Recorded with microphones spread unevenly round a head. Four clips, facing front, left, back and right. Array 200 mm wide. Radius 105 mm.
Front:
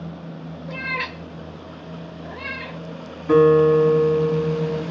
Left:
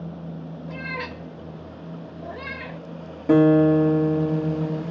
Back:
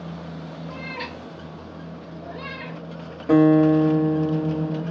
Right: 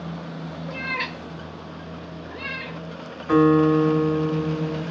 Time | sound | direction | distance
0.7 | a cat meowing | 35° right | 1.2 m
3.3 | a guitar | 110° left | 1.4 m